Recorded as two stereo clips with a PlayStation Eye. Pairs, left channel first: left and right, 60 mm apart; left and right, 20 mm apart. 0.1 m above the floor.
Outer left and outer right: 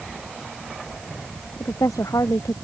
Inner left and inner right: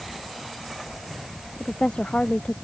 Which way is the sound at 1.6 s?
65° left (ahead or behind).